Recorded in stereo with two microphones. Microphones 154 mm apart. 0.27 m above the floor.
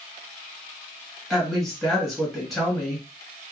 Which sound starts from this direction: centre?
A woman speaking, at 1.3 s.